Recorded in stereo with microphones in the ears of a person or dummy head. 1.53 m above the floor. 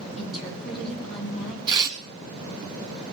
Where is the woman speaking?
Centre (ahead or behind), 3.5 m.